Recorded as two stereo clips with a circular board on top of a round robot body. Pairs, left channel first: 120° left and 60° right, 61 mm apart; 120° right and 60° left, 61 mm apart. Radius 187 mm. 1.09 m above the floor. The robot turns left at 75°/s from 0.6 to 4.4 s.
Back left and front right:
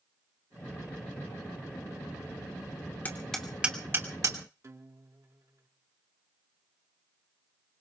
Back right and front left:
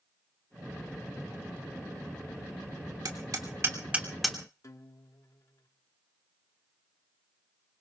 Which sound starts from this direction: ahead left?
Hammering, at 3.0 s.